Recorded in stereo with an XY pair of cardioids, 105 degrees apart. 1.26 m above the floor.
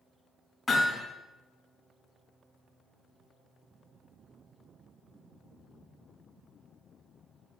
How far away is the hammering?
About 4.5 m.